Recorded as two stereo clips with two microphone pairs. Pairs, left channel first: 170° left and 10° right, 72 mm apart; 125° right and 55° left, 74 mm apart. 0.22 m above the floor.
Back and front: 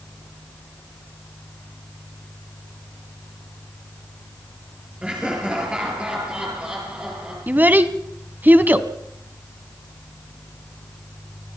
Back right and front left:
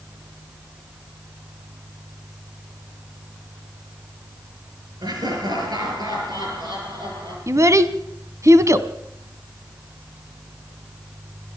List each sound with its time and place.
5.0 s laughter: 65° left, 5 m; by 7.4 s 60° left, 6.5 m
7.5 s a child speaking: 40° left, 1.2 m